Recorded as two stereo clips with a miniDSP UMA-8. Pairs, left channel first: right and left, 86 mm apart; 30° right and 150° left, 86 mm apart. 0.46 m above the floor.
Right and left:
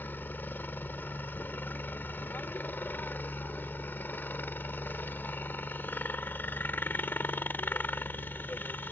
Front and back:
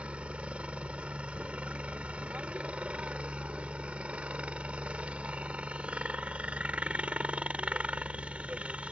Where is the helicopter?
140° right.